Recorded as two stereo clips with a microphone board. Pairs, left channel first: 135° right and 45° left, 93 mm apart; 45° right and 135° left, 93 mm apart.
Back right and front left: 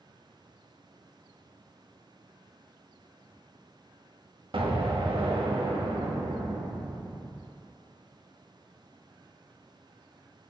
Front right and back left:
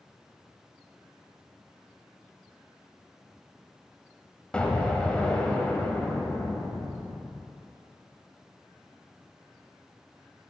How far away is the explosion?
About 0.8 m.